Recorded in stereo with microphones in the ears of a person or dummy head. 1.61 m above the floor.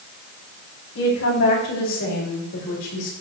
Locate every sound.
0.9 s a woman speaking: 85° left, 6.5 m; by 3.1 s 75° left (ahead or behind), 4.5 m